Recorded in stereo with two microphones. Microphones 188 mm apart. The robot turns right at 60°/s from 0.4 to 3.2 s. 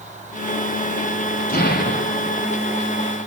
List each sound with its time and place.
1.5 s an explosion: 50° left, 4.5 m; by 2.5 s 110° left, 4.5 m